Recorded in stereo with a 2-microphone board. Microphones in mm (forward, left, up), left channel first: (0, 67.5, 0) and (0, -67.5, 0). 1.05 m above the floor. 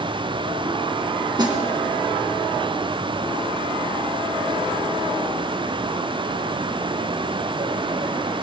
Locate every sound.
1.4 s a snare drum: 30° right (ahead or behind), 2 m